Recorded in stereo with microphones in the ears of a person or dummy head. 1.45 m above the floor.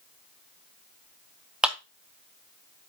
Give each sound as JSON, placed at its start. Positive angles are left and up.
{"t": 1.6, "sound": "a clap", "side_deg": -5, "distance_m": 0.6}